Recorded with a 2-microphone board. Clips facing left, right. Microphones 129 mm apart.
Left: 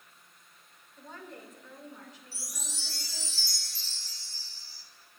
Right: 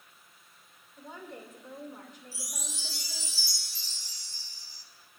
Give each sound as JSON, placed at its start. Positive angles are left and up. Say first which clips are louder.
{"t": 1.0, "sound": "a woman speaking", "louder": "right 2 dB", "side_deg": -10, "distance_m": 2.0}
{"t": 2.3, "sound": "a chime", "louder": "right 2 dB", "side_deg": -15, "distance_m": 0.9}